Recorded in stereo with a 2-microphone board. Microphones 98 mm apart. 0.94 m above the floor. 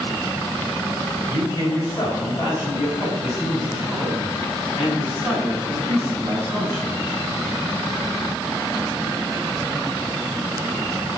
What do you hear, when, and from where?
1.3 s a man speaking: 40° left (ahead or behind), 4.5 m